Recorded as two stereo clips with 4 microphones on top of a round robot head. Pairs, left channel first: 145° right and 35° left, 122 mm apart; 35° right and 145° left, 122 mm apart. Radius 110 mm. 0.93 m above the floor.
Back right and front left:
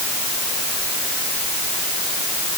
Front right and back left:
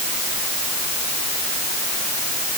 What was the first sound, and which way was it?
Only background noise.